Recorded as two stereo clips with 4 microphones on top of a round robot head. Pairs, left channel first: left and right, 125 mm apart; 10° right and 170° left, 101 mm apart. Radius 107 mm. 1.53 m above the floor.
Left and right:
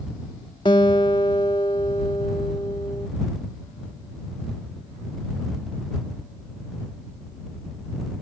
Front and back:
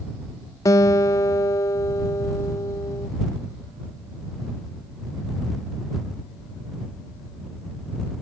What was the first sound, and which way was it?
A guitar, 30° left.